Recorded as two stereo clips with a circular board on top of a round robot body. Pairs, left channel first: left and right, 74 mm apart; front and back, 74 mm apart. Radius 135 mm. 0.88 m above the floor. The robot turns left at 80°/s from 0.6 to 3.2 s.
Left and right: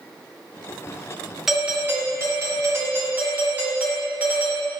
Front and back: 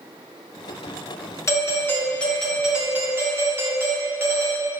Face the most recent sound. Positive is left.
turn(degrees=-145)